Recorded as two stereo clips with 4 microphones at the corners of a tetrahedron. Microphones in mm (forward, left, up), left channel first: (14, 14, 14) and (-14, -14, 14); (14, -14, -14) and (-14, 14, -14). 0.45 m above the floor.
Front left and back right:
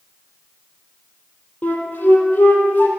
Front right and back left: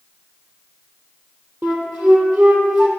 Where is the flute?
100° left, 3 m.